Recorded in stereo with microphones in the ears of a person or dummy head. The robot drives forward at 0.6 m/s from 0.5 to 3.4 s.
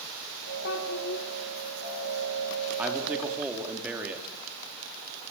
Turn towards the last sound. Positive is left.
turn(degrees=0)  # may be behind; listen again after turning